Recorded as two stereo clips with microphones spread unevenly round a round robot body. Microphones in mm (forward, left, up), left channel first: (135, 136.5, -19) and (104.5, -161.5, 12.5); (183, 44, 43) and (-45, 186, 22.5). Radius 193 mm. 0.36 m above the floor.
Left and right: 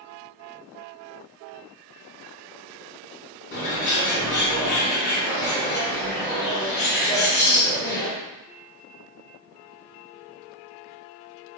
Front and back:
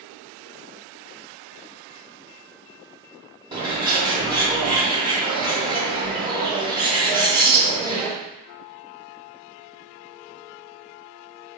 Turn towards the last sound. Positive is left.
turn(degrees=90)